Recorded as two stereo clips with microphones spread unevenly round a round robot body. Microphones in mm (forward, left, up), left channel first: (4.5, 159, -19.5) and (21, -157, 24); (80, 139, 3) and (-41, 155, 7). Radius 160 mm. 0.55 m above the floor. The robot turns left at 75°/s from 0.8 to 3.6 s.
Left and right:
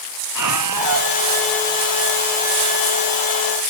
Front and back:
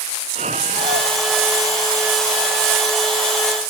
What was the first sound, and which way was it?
A scream, 120° right.